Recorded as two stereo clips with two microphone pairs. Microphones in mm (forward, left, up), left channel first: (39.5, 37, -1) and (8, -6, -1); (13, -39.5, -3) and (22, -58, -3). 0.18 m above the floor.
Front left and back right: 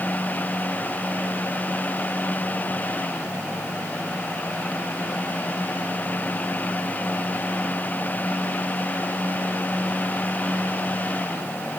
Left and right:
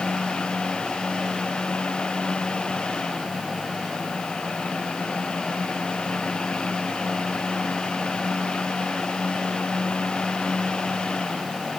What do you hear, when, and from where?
Only background noise.